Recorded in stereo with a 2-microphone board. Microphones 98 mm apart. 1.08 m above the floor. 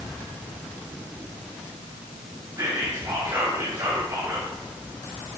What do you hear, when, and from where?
2.6 s whispering: 40° right (ahead or behind), 3.5 m